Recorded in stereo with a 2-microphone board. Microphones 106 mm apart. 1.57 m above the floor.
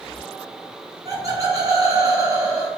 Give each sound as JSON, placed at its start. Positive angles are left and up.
{"t": 1.1, "sound": "laughter", "side_deg": -35, "distance_m": 0.9}